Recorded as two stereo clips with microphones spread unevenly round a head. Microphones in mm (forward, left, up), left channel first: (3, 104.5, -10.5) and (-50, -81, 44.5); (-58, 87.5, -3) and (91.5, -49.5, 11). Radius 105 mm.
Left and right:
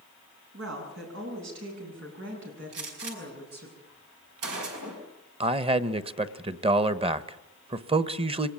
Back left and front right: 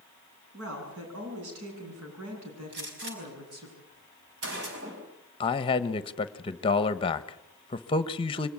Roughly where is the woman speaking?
Right.